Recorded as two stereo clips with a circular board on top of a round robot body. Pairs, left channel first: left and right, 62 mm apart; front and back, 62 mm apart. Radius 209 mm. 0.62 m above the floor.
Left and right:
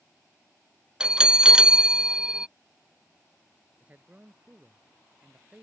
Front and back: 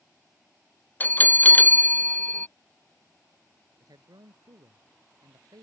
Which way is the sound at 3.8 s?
160° right.